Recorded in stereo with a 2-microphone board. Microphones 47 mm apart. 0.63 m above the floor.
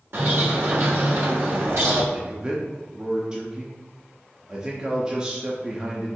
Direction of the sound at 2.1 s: 20° right (ahead or behind).